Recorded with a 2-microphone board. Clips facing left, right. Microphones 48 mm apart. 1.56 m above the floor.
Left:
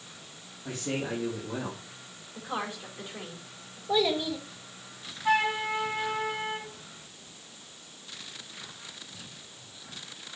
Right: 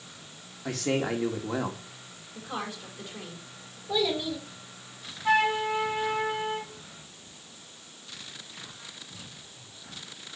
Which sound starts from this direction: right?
A man speaking, at 0.7 s.